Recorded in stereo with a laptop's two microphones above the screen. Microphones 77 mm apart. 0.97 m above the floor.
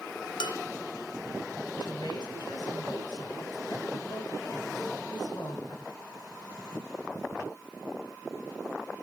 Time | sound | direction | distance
0.4 | dishes clattering | 85° left | 2 m
1.8 | a woman speaking | 65° left (ahead or behind) | 8.5 m